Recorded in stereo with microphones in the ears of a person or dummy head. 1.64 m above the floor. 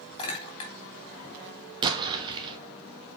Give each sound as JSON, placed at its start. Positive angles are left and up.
{"t": 0.2, "sound": "a clink", "side_deg": 30, "distance_m": 2.5}
{"t": 1.8, "sound": "an explosion", "side_deg": -25, "distance_m": 1.2}